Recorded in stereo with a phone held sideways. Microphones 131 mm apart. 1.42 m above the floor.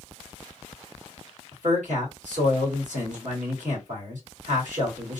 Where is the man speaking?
70° right (ahead or behind), 1.5 m.